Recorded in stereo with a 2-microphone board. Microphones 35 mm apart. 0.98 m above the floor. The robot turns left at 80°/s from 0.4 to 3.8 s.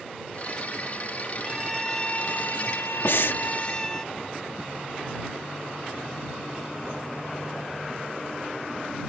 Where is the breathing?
75° left (ahead or behind); by 3.4 s 65° left (ahead or behind).